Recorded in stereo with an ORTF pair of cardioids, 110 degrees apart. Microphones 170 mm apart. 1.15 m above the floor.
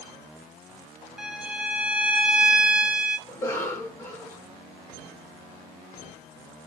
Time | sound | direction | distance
1.2 | a violin | 5° right | 0.9 m
3.3 | a cough | 15° left | 1.6 m